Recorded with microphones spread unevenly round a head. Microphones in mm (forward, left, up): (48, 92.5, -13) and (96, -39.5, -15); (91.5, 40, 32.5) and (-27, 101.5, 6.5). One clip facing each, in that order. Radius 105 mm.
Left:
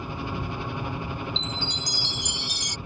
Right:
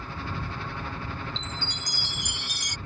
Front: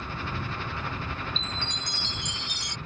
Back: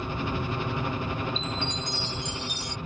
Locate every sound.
0.0 s a helicopter: 165° left
1.4 s a chime: 30° right